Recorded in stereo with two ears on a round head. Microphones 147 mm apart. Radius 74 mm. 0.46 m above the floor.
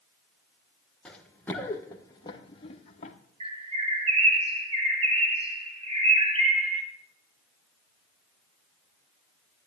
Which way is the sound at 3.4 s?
35° right (ahead or behind).